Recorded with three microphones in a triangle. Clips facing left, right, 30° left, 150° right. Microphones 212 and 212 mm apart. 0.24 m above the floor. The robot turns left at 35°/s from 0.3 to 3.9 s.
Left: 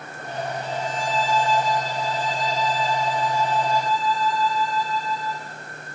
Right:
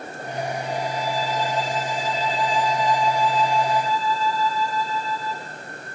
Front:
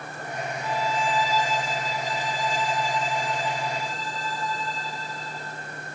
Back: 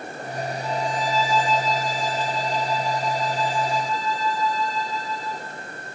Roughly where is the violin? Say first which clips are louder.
Right 1 dB, even; left.